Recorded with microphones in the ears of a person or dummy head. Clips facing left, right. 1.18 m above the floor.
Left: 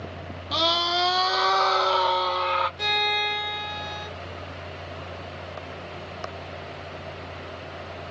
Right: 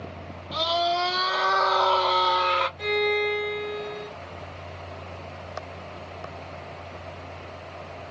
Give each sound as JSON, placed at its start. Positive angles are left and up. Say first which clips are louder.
{"t": 0.5, "sound": "a scream", "louder": "right 2 dB", "side_deg": 65, "distance_m": 1.0}
{"t": 2.8, "sound": "a violin", "louder": "right 6 dB", "side_deg": 55, "distance_m": 1.1}